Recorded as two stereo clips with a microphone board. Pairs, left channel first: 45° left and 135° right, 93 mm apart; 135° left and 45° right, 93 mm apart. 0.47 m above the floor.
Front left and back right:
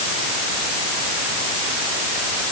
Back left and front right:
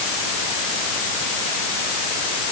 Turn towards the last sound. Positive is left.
No sound to turn to.